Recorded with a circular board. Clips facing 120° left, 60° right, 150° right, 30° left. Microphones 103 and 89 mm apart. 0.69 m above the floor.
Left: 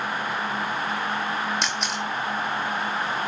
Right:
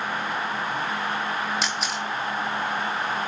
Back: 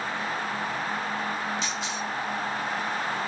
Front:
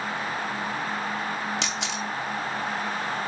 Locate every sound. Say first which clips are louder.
1.6 s a camera shutter: even, front 1 dB; 30° left, 0.8 m